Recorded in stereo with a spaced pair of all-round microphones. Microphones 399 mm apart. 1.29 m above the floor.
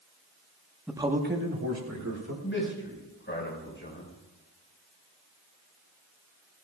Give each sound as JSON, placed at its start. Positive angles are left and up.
{"t": 0.9, "sound": "a man speaking", "side_deg": 0, "distance_m": 0.9}
{"t": 2.4, "sound": "a man speaking", "side_deg": 30, "distance_m": 5.0}